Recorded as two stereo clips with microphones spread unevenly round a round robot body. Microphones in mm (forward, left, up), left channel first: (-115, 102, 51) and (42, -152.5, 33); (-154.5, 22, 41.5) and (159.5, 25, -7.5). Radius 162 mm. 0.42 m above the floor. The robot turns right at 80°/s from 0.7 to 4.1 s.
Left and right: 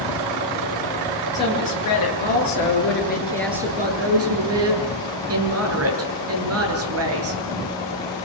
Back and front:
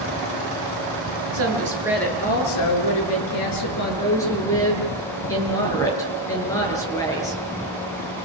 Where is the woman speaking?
40° left, 9 m; by 7.4 s 100° right, 9 m.